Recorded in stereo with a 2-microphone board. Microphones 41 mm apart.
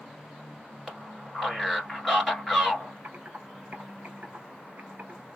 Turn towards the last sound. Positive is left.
turn(degrees=-50)  # may be behind; listen again after turning